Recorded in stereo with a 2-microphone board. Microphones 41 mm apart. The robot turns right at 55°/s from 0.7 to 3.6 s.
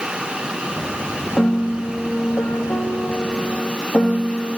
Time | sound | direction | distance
1.4 | a piano | 20° left | 2.5 m